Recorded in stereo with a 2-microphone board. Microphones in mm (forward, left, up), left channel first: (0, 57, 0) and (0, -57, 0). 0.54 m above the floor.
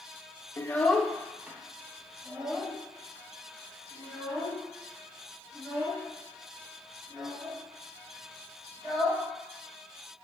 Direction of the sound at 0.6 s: 25° left (ahead or behind).